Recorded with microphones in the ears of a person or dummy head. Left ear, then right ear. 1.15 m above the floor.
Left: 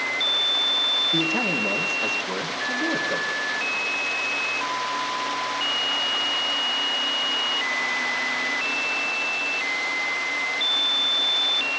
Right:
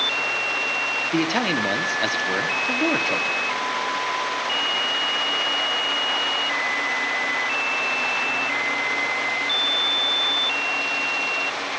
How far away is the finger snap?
I don't hear a finger snap.